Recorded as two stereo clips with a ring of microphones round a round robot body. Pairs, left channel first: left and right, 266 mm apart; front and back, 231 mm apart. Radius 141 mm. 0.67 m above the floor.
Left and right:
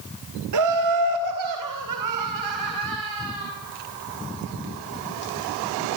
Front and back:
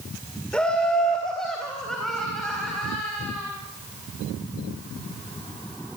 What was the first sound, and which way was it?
Laughter, 85° right.